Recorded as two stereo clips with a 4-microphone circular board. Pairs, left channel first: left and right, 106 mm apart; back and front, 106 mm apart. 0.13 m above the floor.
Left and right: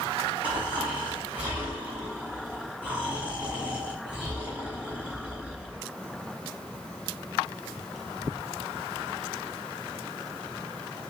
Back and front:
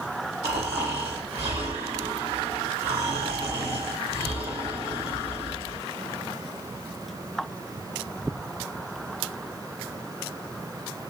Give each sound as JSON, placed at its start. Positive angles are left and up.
{"t": 0.4, "sound": "snoring", "azimuth_deg": -15, "distance_m": 2.0}